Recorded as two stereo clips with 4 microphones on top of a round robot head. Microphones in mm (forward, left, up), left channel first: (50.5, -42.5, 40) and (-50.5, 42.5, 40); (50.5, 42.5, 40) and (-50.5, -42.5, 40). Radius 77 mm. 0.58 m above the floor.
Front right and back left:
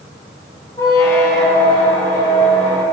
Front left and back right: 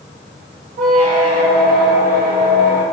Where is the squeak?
110° right, 0.6 m.